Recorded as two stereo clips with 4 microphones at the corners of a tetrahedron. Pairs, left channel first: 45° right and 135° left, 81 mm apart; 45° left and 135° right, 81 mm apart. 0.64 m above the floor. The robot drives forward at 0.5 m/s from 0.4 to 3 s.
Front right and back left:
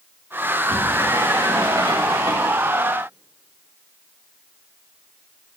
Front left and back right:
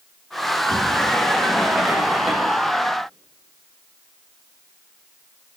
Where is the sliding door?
115° left, 1.3 m; by 2.6 s 145° left, 2.0 m.